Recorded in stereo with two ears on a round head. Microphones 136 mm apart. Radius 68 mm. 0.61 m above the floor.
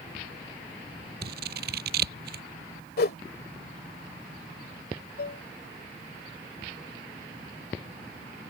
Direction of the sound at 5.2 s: 70° left (ahead or behind).